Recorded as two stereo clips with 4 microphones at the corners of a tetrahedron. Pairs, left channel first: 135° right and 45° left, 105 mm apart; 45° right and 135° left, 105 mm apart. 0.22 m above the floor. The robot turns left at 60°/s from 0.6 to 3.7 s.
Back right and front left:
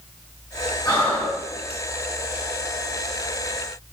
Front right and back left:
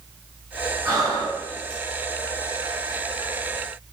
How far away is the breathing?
About 1.7 m.